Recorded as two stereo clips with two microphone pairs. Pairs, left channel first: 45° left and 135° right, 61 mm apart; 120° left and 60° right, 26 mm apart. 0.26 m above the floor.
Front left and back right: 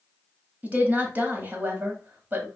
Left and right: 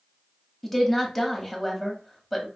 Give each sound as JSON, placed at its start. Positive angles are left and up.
{"t": 0.6, "sound": "a woman speaking", "azimuth_deg": -165, "distance_m": 1.3}